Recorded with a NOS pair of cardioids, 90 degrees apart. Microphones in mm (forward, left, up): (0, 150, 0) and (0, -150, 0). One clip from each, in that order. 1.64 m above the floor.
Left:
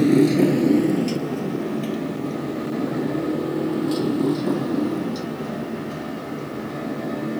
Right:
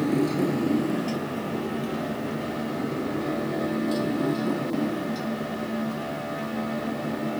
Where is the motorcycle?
65° left; by 7.4 s 40° left.